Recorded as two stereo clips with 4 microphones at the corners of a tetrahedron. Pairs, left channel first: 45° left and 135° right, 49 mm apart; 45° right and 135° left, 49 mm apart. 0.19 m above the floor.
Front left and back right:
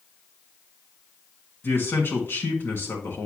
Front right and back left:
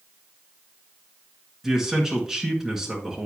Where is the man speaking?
60° left, 2 m.